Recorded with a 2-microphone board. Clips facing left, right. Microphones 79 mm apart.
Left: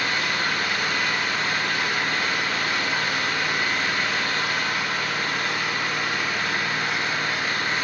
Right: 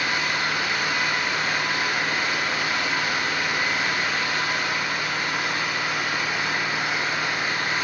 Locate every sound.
0.0 s an engine running: 10° right (ahead or behind), 2.5 m